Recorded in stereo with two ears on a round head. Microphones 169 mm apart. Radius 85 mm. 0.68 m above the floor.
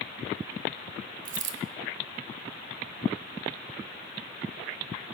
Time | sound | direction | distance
1.2 | a dropped coin | 45° right (ahead or behind) | 1.2 m